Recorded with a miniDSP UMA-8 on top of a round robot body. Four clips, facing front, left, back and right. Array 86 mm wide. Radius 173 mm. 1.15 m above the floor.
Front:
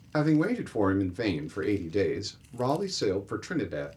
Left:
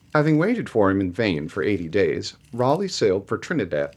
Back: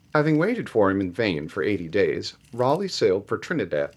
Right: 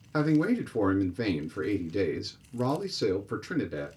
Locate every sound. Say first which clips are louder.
0.1 s a man speaking: left 6 dB, back 4 dB; 130° left, 0.6 m